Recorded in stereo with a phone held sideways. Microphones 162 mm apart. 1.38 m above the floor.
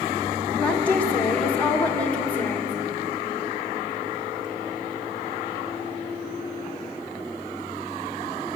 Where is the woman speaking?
10° left (ahead or behind), 2 m.